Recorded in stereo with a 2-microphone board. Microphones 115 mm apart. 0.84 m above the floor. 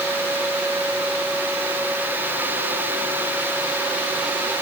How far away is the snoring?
I don't hear snoring.